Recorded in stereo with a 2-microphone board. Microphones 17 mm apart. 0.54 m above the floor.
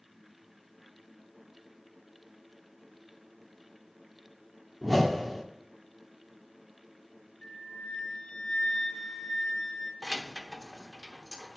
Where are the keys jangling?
Centre (ahead or behind), 0.9 m.